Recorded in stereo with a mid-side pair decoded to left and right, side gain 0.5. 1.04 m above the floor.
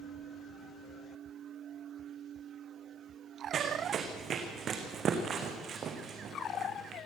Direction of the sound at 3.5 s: 50° right.